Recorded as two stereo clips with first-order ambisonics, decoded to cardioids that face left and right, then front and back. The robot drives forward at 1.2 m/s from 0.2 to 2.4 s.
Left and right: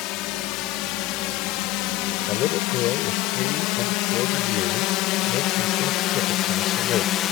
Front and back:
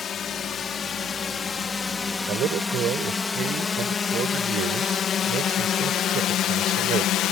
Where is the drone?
65° left; by 7.3 s 45° left.